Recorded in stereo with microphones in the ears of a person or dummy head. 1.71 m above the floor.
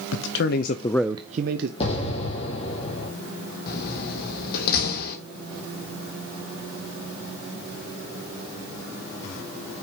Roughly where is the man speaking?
Left.